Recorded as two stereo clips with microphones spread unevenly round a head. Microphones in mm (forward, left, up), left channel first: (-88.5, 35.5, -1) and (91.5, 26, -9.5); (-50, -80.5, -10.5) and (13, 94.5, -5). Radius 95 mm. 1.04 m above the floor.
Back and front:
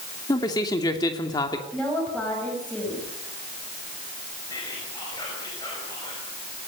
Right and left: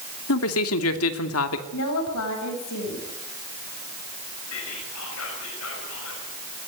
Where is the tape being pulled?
I don't hear tape being pulled.